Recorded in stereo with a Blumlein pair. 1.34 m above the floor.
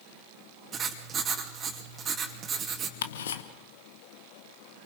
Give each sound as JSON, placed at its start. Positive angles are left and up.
{"t": 0.7, "sound": "writing", "azimuth_deg": -20, "distance_m": 2.5}
{"t": 3.0, "sound": "ticking", "azimuth_deg": 60, "distance_m": 1.1}